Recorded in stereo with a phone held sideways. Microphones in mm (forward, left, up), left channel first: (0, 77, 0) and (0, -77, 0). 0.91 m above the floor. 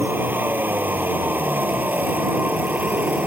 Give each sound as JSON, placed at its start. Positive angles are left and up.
{"t": 0.0, "sound": "a vehicle", "side_deg": -15}